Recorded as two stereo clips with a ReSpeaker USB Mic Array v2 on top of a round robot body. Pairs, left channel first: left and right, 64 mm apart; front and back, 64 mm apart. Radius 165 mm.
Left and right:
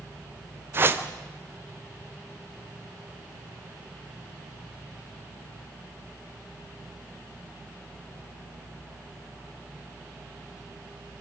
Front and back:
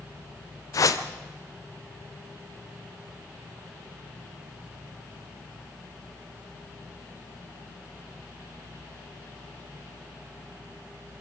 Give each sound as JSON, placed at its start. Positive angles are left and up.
{"t": 0.7, "sound": "a whoosh", "azimuth_deg": -35, "distance_m": 0.9}